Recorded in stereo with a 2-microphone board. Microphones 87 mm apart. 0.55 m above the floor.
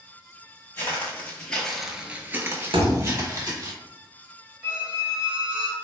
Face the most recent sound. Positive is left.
turn(degrees=-10)  # may be behind; listen again after turning